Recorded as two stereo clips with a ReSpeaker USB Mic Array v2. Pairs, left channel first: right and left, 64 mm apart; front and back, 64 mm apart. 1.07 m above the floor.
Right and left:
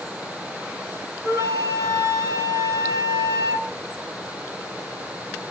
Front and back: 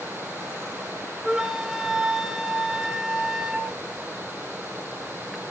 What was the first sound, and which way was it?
A flute, 100° left.